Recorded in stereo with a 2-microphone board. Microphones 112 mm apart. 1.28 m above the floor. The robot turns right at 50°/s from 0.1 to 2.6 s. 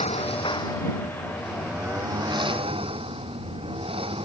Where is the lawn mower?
110° left; by 4.3 s 125° right.